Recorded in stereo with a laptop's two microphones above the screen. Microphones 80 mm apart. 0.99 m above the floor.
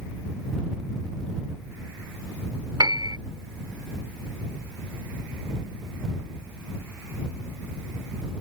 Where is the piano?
65° right (ahead or behind).